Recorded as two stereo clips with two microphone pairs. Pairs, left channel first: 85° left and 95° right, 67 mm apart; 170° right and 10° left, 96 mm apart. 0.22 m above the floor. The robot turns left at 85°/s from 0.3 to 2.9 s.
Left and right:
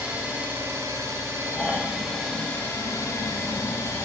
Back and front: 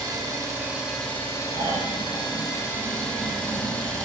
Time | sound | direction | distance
0.0 | an engine running | 30° right | 0.8 m
1.5 | snoring | 20° left | 1.0 m